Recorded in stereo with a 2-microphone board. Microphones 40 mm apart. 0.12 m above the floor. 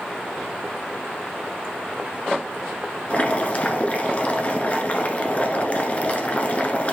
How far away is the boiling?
About 1.0 m.